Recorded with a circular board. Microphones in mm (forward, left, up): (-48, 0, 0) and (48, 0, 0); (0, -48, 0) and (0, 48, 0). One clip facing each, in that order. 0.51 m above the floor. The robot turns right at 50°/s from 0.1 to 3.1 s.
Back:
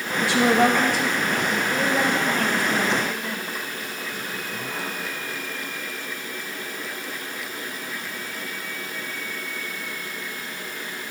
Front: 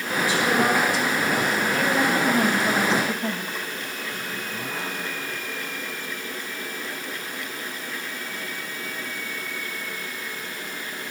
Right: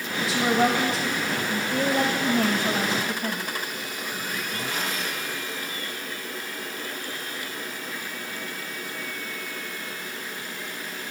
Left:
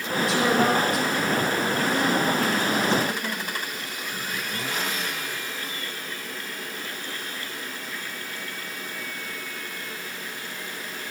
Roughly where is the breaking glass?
I don't hear breaking glass.